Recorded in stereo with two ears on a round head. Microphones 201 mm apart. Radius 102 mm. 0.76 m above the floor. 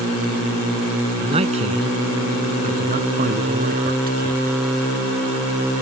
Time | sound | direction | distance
1.2 | a man speaking | 25° right (ahead or behind) | ?